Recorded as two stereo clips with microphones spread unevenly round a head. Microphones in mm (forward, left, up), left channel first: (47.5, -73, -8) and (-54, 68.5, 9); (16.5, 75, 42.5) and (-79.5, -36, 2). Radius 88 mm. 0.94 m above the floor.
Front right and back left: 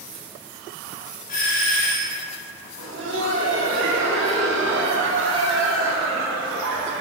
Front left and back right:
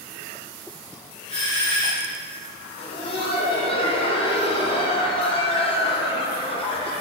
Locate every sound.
1.3 s a doorbell: 15° right, 3 m
2.8 s laughter: 105° left, 2 m